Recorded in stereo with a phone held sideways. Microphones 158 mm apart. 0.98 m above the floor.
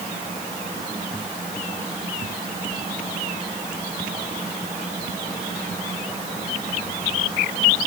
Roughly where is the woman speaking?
No woman speaking in this recording.